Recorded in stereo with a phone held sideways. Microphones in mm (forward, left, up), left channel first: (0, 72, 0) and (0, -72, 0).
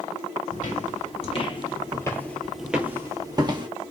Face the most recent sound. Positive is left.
turn(degrees=-35)  # may be behind; listen again after turning